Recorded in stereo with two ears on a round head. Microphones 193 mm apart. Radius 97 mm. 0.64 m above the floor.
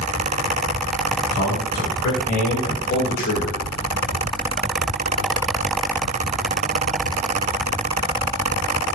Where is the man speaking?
35° left (ahead or behind), 4 m; by 3.6 s 45° left (ahead or behind), 3 m.